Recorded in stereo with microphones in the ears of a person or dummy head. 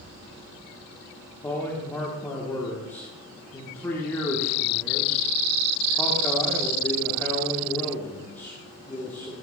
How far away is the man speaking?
About 1.4 m.